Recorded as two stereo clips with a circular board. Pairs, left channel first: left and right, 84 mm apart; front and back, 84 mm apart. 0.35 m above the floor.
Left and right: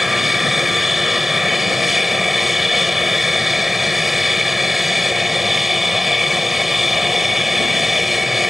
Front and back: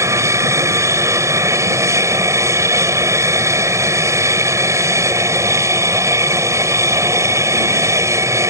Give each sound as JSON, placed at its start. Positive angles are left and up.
{"t": 0.0, "sound": "an aircraft", "azimuth_deg": -175}